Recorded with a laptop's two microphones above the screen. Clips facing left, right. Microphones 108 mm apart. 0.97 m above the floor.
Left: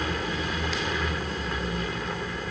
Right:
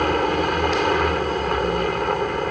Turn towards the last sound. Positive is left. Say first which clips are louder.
# right 10 dB
turn(degrees=-60)  # may be behind; listen again after turning